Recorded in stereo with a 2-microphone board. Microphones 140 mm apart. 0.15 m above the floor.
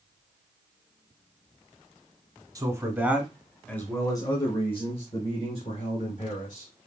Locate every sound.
2.5 s a man speaking: 25° right (ahead or behind), 1.2 m; by 6.7 s 65° left (ahead or behind), 2.5 m